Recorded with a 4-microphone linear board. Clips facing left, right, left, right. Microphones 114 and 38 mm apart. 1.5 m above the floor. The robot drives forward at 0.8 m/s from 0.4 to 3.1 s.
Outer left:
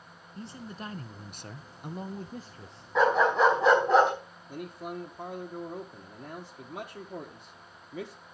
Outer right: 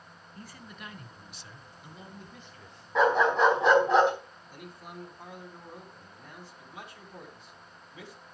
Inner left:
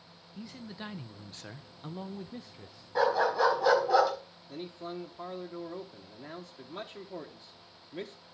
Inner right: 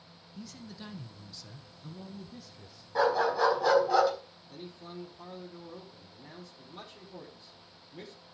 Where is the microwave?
No microwave in this recording.